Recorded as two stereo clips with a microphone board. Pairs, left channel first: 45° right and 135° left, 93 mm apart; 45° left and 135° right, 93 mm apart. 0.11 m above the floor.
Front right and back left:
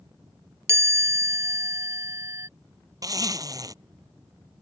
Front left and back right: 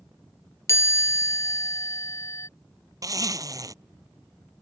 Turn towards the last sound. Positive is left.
turn(degrees=180)